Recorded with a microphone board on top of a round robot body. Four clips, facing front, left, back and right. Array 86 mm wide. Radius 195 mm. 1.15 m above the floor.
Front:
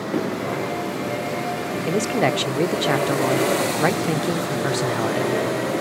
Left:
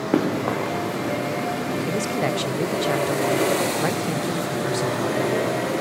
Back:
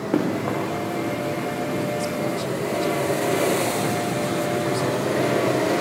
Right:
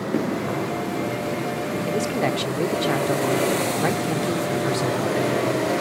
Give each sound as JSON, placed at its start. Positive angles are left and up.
{"t": 0.1, "sound": "running footsteps", "azimuth_deg": 115, "distance_m": 8.0}
{"t": 1.9, "sound": "a man speaking", "azimuth_deg": -5, "distance_m": 1.0}